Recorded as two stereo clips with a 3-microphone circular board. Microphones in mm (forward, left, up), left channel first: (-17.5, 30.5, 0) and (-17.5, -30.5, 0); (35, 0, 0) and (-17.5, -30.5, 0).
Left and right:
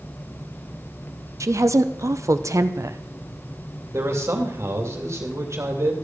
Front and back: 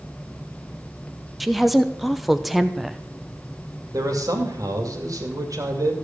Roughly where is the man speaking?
Behind right.